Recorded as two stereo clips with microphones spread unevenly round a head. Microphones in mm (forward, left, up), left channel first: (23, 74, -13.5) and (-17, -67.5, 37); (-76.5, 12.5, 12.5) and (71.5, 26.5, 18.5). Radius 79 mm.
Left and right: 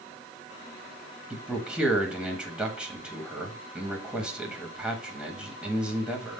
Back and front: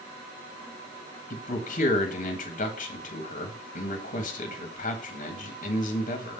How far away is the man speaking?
About 1.4 m.